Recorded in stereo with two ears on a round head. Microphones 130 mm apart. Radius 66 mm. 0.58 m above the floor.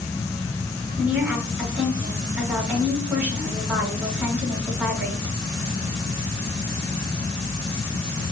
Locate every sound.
1.0 s a woman speaking: 15° right (ahead or behind), 5 m